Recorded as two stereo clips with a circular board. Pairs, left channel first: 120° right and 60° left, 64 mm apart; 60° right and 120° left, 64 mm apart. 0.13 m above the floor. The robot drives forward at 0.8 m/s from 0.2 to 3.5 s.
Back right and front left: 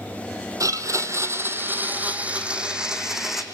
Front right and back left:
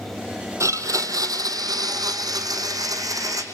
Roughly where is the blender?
Left.